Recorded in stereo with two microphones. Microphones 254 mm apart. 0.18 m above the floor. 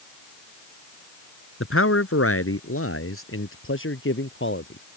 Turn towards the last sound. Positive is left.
turn(degrees=50)  # may be behind; listen again after turning